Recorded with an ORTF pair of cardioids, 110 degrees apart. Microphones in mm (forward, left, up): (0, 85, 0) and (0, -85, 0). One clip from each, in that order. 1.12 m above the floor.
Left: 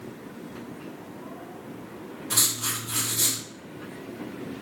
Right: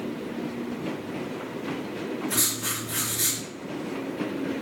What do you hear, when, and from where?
2.3 s writing: 55° left, 1.9 m